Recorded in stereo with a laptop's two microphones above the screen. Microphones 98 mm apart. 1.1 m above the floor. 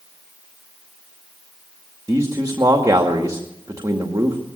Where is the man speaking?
35° right (ahead or behind), 2 m.